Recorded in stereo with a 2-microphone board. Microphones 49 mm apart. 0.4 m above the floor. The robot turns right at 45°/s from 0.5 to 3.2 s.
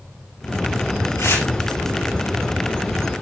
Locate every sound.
1.2 s tearing paper: 75° left (ahead or behind), 4.5 m; by 1.5 s 65° left (ahead or behind), 4.5 m